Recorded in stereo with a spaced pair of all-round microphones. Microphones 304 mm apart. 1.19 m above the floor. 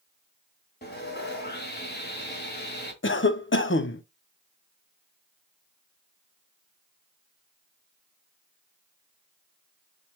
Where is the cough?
40° left (ahead or behind), 0.6 m.